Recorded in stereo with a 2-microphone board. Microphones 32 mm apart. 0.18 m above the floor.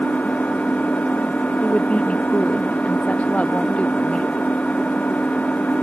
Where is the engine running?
50° left (ahead or behind).